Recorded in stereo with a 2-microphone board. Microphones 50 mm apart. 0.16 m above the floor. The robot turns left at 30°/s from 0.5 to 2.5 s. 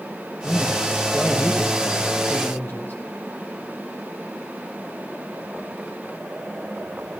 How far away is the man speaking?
About 3 m.